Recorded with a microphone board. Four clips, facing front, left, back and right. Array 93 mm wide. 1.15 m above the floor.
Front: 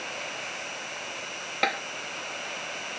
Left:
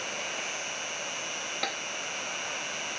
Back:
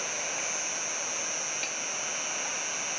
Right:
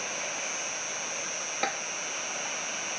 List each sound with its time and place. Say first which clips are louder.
0.0 s an insect: even, even; 50° left
1.6 s tapping: right 4 dB, front 11 dB; 15° right